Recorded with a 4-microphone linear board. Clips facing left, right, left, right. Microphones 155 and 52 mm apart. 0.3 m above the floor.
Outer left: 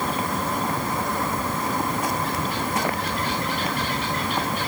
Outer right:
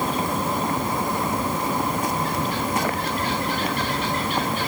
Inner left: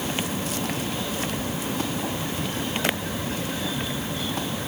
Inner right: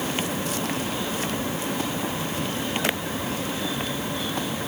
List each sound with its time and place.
Only background noise.